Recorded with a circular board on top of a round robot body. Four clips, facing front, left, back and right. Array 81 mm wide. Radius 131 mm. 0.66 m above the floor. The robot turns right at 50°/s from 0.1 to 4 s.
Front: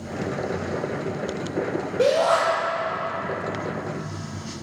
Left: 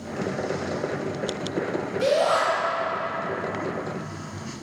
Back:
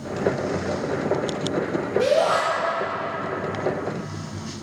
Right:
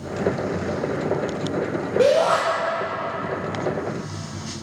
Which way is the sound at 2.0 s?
65° right.